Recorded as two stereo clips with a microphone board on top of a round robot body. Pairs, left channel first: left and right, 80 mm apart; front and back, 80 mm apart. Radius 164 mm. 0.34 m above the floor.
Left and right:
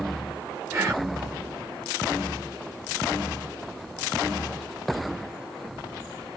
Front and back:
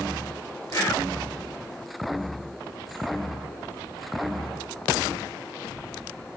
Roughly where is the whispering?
Ahead right.